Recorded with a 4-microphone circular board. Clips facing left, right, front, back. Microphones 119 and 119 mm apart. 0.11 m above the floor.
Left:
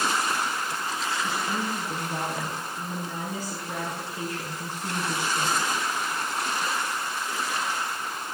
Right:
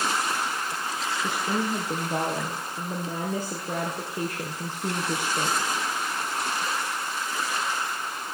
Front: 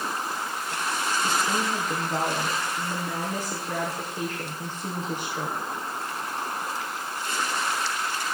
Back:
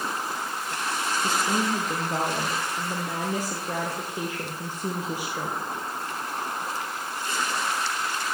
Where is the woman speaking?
105° right, 3 m.